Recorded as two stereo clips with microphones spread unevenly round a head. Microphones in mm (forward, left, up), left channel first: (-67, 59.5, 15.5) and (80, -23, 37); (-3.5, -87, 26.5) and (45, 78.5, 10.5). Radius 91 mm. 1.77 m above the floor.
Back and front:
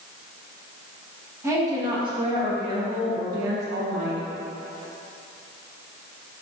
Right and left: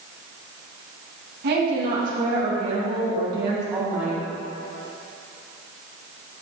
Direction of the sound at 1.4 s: 45° left.